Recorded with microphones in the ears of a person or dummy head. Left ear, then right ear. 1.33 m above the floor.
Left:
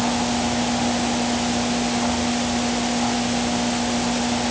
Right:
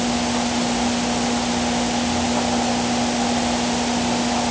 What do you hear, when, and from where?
Only background noise.